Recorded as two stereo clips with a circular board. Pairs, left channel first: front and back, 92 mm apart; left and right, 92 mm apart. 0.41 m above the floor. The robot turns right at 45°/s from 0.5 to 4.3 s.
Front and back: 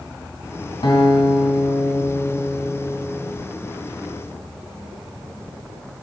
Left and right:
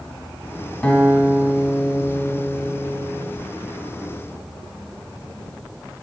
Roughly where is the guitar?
Ahead.